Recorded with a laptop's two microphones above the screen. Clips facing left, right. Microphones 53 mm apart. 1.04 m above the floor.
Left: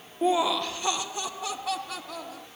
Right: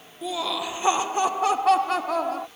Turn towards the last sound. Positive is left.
turn(degrees=-60)  # may be behind; listen again after turning